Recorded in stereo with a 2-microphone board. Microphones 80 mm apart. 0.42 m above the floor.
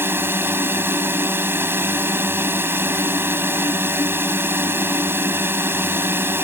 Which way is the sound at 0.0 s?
25° right (ahead or behind).